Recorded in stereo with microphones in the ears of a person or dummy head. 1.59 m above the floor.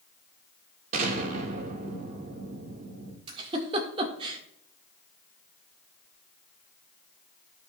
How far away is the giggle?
About 1.7 m.